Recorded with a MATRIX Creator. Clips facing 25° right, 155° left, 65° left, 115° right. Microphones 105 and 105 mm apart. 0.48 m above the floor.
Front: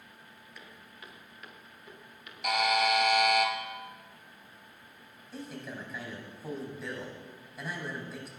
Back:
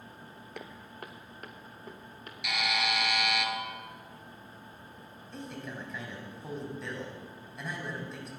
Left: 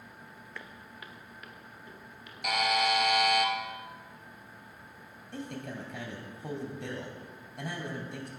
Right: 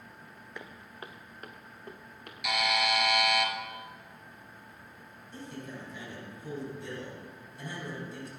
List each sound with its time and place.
0.6 s footsteps: 175° left, 1.0 m; by 2.3 s 150° right, 3.5 m
2.4 s a buzzer: 25° left, 1.8 m
5.3 s a man speaking: 65° left, 3 m